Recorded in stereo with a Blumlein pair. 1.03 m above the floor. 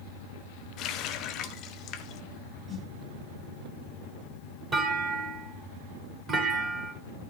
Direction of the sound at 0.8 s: 35° left.